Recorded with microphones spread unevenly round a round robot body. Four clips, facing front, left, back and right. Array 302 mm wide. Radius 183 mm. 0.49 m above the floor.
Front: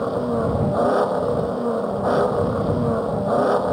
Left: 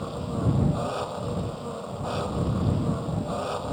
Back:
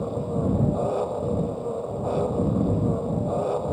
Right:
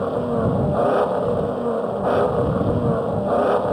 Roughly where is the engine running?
Ahead right.